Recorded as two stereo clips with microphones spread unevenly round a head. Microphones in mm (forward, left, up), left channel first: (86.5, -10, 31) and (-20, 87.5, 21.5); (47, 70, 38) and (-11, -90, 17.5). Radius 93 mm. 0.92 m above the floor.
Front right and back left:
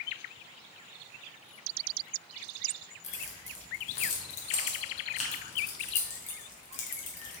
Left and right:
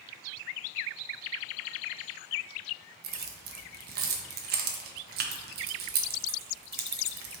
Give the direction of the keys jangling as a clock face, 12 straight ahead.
3 o'clock.